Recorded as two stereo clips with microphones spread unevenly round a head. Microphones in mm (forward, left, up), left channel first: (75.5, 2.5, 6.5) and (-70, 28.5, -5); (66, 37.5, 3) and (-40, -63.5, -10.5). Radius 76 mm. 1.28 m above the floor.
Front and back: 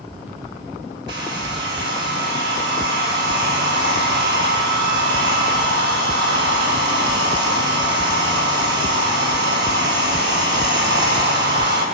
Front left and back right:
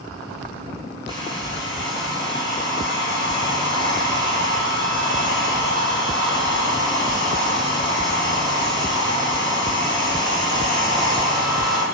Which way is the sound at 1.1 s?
160° left.